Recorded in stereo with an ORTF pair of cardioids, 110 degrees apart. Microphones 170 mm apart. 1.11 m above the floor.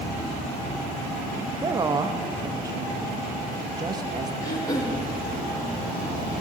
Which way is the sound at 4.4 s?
25° left.